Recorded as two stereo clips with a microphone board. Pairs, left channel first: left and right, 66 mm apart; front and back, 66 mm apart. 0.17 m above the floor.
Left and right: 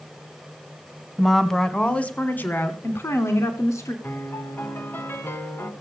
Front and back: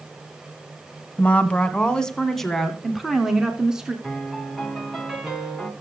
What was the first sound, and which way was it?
A woman speaking, straight ahead.